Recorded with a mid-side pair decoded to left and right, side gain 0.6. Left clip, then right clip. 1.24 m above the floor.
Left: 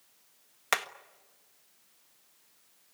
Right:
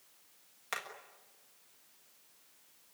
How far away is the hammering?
About 1.4 m.